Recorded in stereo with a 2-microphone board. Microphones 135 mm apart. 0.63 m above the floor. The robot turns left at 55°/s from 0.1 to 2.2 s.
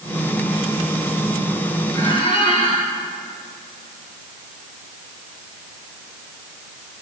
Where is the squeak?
25° left (ahead or behind), 4.5 m; by 2.9 s 40° left (ahead or behind), 4.5 m.